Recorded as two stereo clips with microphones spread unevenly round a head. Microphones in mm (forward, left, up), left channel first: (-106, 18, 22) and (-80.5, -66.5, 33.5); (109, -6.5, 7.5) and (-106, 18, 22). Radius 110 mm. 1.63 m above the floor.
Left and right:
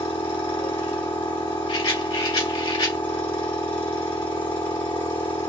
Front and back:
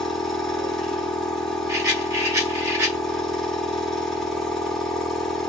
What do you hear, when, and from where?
0.0 s a machine running: 85° left, 1.4 m
1.7 s a rattle: 100° left, 3 m